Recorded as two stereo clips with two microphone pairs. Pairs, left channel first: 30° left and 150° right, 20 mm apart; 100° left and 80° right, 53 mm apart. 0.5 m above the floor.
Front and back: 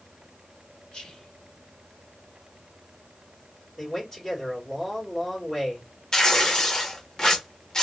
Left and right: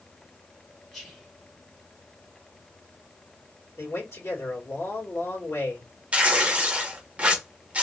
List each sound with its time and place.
0.9 s whispering: 20° left, 1.9 m
3.8 s a man speaking: 90° left, 2 m
6.1 s tearing paper: 20° right, 1.2 m